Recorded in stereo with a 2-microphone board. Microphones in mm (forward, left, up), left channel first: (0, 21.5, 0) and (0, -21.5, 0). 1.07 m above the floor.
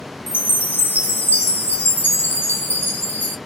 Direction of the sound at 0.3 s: 50° left (ahead or behind).